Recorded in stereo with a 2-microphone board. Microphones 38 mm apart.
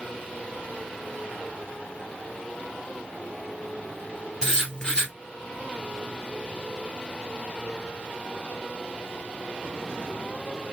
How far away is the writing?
About 1.5 m.